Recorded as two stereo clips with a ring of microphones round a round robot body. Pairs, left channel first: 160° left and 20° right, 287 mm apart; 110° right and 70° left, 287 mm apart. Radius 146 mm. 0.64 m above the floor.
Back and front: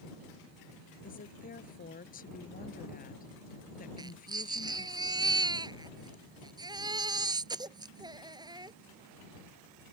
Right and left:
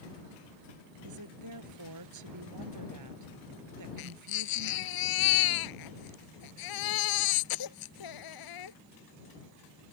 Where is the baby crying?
100° right.